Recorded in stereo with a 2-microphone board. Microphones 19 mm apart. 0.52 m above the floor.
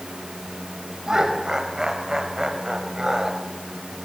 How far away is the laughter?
About 3.5 m.